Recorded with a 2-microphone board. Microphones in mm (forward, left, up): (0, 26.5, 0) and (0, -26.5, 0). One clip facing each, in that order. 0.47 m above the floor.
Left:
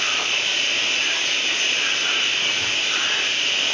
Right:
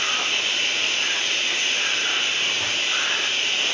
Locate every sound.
0.0 s running water: 50° left (ahead or behind), 4.5 m